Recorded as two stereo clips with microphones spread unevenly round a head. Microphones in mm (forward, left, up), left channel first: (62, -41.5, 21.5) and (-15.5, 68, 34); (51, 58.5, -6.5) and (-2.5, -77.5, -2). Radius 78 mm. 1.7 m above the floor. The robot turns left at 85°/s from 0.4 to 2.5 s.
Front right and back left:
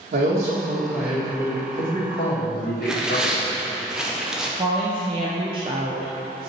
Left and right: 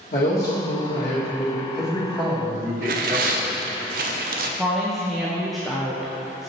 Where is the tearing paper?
150° right, 0.5 m.